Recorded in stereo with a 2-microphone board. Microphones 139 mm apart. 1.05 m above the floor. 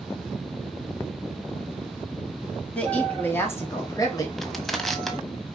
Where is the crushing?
Centre (ahead or behind), 1.2 m.